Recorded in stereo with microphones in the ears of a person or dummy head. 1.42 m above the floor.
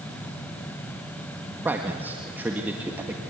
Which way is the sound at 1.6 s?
15° right (ahead or behind).